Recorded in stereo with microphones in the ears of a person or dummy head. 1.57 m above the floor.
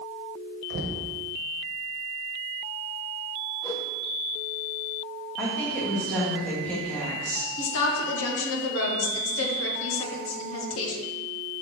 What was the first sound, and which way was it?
Knocking, 55° right (ahead or behind).